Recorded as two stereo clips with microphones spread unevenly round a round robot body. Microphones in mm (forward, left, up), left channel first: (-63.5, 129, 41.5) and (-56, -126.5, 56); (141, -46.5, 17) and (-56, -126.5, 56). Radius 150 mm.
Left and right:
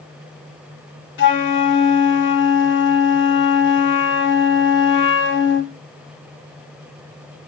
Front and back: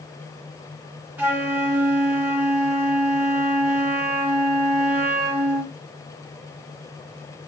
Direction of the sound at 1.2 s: 110° left.